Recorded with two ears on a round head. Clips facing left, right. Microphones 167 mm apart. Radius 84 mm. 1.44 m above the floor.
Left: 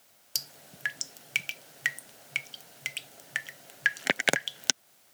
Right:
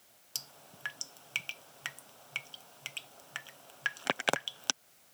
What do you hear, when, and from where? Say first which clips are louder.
0.3 s dripping: left 3 dB; 20° left (ahead or behind)